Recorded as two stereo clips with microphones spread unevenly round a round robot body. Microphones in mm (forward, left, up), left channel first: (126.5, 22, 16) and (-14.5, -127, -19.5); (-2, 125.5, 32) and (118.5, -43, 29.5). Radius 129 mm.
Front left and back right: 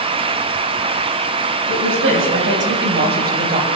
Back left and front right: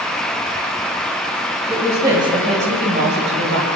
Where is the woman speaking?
140° right, 2.5 m; by 3.7 s 85° right, 2.5 m.